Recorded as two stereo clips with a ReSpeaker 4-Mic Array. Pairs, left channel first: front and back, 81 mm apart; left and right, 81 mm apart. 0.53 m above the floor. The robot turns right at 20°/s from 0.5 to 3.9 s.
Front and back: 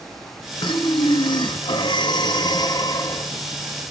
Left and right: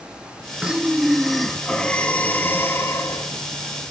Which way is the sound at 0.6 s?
15° right.